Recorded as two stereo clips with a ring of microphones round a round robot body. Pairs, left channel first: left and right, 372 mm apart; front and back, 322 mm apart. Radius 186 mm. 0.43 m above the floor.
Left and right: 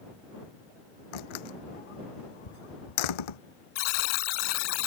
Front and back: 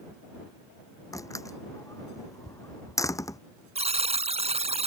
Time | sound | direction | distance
1.1 | a door slam | 80° left | ?
3.8 | a buzzer | 110° left | ?